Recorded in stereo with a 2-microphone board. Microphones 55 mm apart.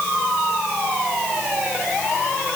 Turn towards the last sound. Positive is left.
No sound to turn to.